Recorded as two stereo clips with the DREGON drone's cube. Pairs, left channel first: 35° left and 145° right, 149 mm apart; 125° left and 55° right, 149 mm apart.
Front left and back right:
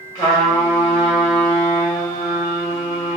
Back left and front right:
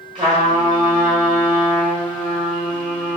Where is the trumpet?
25° right, 1.5 m.